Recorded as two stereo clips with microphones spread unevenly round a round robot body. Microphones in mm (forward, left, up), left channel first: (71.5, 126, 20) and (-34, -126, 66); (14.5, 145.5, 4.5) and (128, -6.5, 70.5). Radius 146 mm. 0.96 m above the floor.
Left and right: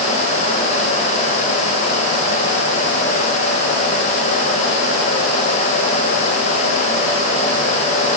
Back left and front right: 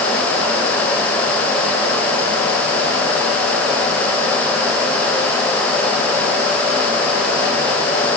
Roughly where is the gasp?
No gasp in this recording.